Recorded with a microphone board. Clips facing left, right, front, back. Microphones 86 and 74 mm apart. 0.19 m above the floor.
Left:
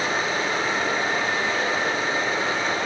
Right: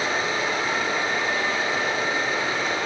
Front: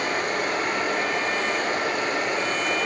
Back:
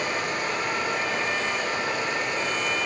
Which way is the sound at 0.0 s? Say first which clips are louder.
Even, front 2 dB; 35° left.